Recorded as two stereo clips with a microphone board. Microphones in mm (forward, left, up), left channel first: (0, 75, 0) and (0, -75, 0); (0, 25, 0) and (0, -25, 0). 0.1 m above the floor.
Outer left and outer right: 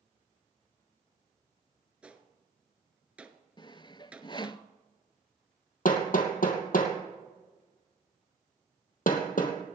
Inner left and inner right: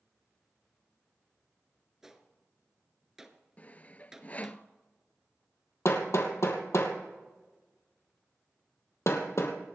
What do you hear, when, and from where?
2.0 s a gunshot: 10° right (ahead or behind), 1.1 m
3.6 s sawing: 30° left (ahead or behind), 0.5 m
5.8 s hammering: 65° left (ahead or behind), 2.5 m